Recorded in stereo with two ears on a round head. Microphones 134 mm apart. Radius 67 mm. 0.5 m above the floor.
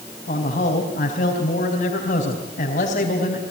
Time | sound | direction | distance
0.3 | a man speaking | 60° left (ahead or behind) | 4 m